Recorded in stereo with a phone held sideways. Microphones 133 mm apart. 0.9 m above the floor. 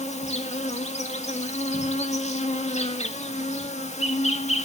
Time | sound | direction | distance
0.0 | an insect | 55° left (ahead or behind) | 2 m